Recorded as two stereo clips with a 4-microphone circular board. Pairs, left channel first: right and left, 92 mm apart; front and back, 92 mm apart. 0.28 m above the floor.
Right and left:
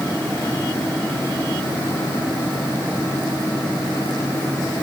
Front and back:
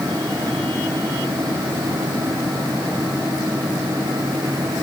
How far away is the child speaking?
No child speaking in this recording.